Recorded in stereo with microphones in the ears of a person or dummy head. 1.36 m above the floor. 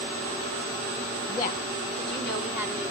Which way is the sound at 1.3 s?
30° left (ahead or behind).